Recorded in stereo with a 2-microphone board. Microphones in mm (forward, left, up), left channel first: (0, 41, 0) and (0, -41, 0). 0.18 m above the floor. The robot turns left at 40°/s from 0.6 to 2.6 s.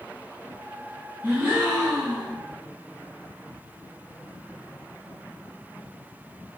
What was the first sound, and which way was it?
A gasp, 135° right.